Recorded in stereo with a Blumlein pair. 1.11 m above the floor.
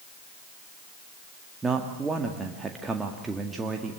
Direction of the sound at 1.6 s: 15° right.